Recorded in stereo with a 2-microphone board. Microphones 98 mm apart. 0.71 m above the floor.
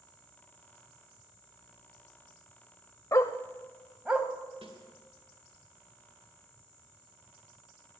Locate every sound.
3.1 s a dog barking: 35° left (ahead or behind), 0.7 m; by 4.3 s 15° right (ahead or behind), 1.2 m
4.6 s a snare drum: 65° right (ahead or behind), 2.5 m